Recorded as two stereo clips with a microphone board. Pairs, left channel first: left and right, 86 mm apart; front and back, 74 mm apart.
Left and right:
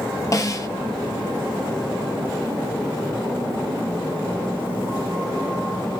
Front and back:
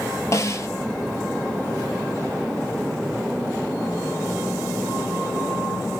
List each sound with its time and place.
0.3 s a snare drum: 45° left, 0.6 m